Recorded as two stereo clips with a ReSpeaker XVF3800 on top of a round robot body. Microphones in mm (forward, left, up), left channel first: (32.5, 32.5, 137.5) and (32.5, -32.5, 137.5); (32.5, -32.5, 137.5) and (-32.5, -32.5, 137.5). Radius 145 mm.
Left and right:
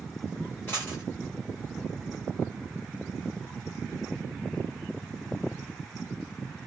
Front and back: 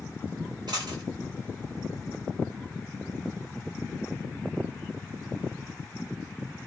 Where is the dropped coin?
160° left, 0.7 m.